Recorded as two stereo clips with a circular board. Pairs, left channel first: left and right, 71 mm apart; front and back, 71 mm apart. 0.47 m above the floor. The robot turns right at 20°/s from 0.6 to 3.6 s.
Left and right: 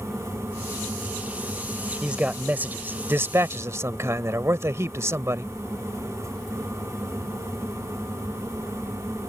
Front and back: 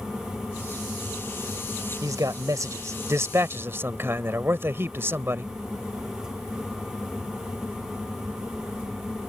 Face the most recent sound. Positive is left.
turn(degrees=-130)